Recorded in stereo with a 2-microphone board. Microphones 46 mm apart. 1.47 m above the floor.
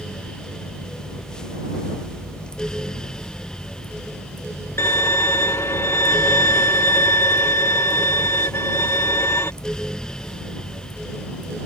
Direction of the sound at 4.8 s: 60° left (ahead or behind).